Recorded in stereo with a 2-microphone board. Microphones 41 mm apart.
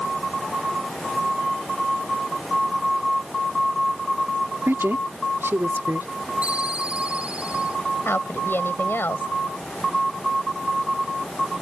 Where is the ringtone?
30° right (ahead or behind).